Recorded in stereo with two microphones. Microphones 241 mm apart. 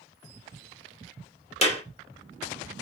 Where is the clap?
25° left (ahead or behind), 3 m.